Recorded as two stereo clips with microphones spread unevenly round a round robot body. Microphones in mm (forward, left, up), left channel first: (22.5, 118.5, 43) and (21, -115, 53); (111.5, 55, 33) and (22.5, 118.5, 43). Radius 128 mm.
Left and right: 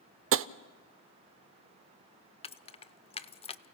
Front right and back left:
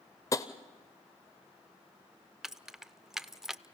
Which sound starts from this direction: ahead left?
Keys jangling, at 2.4 s.